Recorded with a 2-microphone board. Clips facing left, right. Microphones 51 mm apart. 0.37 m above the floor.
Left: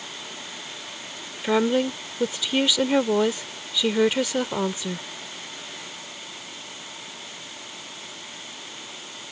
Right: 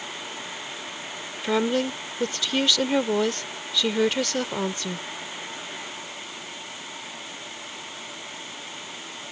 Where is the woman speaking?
10° left (ahead or behind).